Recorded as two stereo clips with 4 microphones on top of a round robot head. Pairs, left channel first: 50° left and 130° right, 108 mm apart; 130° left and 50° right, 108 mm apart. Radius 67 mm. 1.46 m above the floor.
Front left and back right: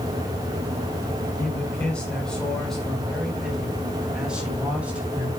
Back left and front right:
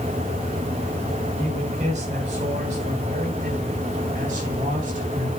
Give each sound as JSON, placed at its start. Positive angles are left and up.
{"t": 1.4, "sound": "a man speaking", "azimuth_deg": -30, "distance_m": 5.5}